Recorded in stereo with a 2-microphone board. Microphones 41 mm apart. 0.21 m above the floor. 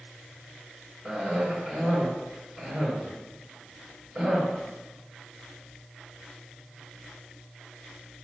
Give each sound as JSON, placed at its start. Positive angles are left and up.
{"t": 1.1, "sound": "a cough", "side_deg": 0, "distance_m": 1.8}